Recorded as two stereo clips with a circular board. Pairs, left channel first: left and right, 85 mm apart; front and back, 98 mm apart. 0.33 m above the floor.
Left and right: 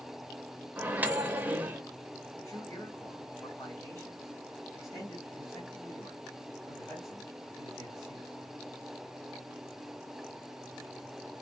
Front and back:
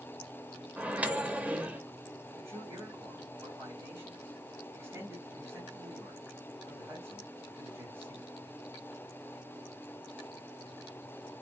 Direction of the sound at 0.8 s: 125° right.